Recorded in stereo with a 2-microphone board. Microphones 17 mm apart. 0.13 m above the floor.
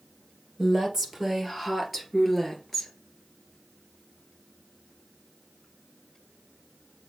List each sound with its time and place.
0.6 s a woman speaking: 15° right (ahead or behind), 2.5 m; by 2.9 s 15° left (ahead or behind), 1.8 m